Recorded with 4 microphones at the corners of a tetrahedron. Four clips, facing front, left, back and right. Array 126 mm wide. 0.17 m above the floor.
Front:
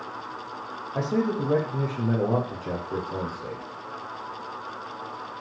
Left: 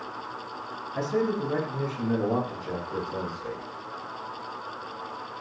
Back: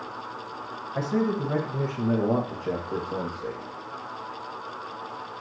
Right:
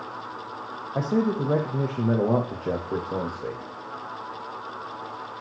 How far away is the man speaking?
About 4.5 m.